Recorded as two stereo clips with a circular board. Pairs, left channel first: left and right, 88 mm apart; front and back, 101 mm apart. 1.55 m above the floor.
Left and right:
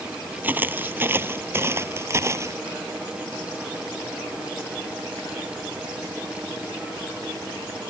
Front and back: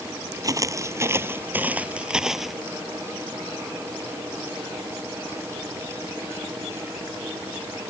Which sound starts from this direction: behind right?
Footsteps, at 0.4 s.